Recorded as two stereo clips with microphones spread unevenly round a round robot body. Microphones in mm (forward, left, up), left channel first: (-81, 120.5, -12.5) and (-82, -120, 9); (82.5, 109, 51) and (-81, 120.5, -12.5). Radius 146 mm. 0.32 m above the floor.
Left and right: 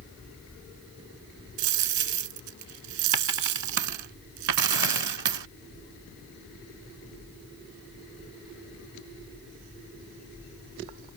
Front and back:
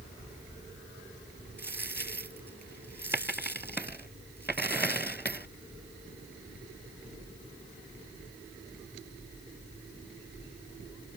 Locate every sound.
1.6 s a dropped coin: 85° right